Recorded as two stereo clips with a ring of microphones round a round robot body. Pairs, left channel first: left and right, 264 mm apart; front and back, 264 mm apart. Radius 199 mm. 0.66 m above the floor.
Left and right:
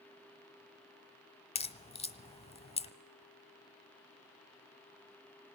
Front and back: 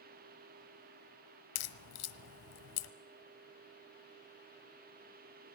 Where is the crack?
20° left, 1.2 m.